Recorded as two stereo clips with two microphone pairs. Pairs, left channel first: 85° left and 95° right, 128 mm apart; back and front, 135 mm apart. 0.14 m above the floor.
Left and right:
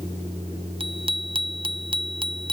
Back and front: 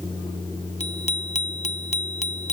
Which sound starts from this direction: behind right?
A bicycle bell, at 0.8 s.